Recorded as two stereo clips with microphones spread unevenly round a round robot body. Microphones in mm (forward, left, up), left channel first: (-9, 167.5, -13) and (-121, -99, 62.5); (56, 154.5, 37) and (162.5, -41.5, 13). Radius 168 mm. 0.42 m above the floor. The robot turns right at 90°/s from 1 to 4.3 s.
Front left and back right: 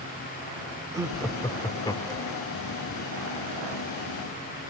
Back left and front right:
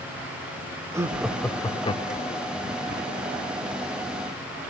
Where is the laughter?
15° right, 0.8 m; by 2.5 s 120° left, 0.8 m.